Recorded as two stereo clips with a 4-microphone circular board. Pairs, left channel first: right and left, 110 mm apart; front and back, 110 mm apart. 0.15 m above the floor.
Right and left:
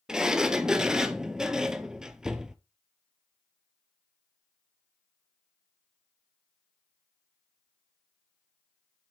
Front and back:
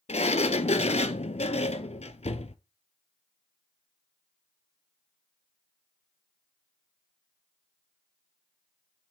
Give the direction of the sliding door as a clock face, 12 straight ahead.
12 o'clock.